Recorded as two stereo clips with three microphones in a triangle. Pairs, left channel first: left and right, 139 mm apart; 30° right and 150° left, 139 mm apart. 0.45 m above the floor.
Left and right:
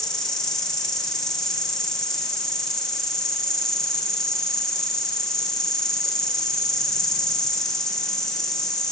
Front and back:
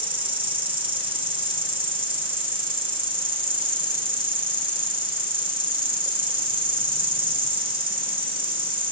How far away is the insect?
About 3 m.